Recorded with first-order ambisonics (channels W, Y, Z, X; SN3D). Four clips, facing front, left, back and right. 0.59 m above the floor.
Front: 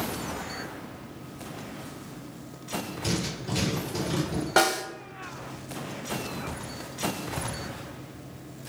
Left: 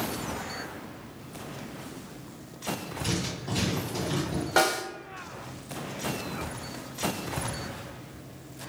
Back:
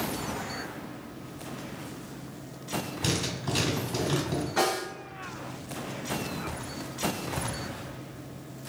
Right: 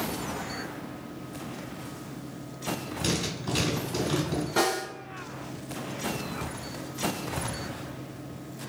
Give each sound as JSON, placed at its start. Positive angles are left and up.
{"t": 3.0, "sound": "writing", "azimuth_deg": -145, "distance_m": 1.3}
{"t": 4.6, "sound": "a snare drum", "azimuth_deg": 30, "distance_m": 0.7}